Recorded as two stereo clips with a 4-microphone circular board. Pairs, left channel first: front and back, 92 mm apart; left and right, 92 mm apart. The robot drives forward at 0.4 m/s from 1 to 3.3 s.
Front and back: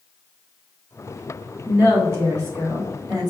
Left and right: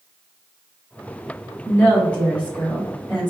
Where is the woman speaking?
145° left, 1.2 m; by 3.3 s 165° left, 1.6 m.